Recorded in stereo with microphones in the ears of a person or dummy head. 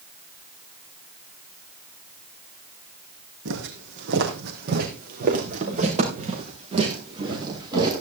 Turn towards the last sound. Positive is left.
turn(degrees=-25)  # may be behind; listen again after turning